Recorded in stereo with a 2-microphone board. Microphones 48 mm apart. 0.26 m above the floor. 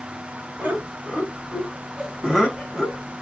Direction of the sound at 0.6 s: 35° right (ahead or behind).